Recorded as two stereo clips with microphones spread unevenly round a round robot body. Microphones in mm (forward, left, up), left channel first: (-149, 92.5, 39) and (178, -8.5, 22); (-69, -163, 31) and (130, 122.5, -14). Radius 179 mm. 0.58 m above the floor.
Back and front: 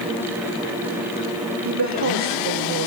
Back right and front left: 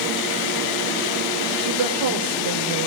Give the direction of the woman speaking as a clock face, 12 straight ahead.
11 o'clock.